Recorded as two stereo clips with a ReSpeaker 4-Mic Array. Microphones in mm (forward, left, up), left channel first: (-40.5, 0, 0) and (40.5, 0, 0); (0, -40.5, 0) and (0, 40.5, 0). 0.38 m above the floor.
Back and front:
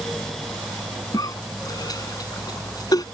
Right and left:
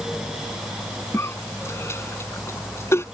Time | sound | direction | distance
1.1 | a cough | 145° right | ?